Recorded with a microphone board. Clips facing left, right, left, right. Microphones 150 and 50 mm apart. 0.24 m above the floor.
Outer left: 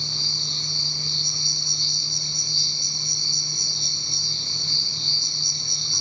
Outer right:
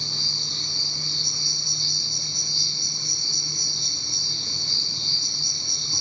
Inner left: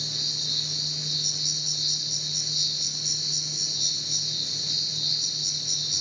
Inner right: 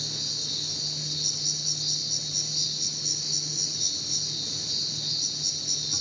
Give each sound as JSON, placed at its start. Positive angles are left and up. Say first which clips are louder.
{"t": 0.0, "sound": "an insect", "louder": "outer left 1 dB, inner left 2 dB", "side_deg": -40, "distance_m": 2.0}